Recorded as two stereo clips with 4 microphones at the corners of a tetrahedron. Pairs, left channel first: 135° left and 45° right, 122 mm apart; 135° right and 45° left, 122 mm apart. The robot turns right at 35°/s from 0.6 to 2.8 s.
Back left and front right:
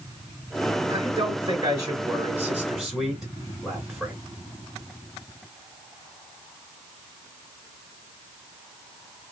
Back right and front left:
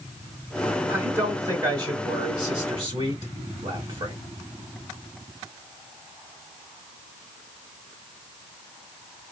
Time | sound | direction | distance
0.9 | a man speaking | 25° right | 1.3 m